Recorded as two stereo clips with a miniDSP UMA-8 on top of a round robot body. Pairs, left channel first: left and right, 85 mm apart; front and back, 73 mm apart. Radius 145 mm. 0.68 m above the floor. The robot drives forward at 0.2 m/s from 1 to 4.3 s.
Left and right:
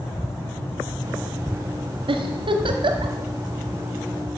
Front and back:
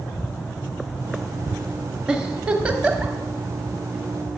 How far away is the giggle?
About 1.2 m.